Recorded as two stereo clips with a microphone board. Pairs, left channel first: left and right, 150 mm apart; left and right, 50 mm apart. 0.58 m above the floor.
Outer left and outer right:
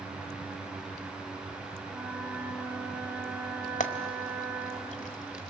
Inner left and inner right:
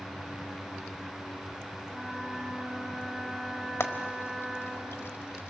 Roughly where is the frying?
Left.